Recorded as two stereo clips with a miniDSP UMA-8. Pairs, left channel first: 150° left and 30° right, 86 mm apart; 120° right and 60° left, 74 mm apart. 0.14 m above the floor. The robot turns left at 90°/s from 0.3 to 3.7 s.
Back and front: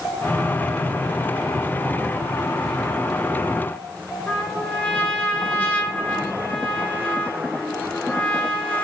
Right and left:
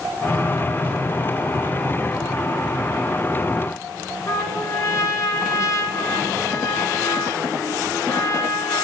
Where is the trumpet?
140° right, 1.7 m.